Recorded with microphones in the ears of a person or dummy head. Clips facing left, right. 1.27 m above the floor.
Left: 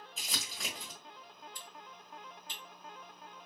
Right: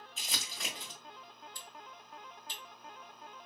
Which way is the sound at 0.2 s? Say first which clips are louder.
Left 1 dB; centre (ahead or behind).